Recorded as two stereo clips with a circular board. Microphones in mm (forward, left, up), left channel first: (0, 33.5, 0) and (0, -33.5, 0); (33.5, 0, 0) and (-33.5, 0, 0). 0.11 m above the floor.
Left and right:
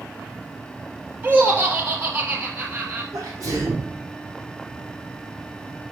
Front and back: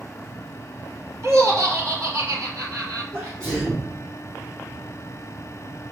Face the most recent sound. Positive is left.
turn(degrees=-130)